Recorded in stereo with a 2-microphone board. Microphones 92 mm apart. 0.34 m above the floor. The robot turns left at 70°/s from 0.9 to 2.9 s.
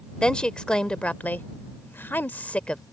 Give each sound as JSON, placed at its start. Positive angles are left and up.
{"t": 0.2, "sound": "a woman speaking", "side_deg": 10}